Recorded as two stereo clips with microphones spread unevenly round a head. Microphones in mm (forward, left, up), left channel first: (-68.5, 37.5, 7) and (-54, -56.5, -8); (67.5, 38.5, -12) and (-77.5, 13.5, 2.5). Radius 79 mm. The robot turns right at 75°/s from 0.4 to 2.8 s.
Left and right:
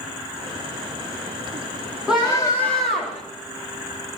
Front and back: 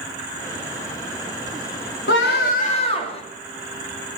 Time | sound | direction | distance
2.1 | a scream | straight ahead | 2.5 m